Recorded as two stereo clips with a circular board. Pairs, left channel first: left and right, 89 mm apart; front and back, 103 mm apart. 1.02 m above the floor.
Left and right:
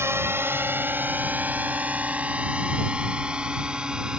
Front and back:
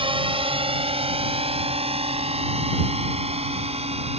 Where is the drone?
150° right; by 4.2 s 170° right.